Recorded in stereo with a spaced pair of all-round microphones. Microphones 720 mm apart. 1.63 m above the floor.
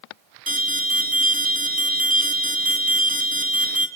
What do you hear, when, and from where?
0.5 s an alarm: 30° right (ahead or behind), 1.5 m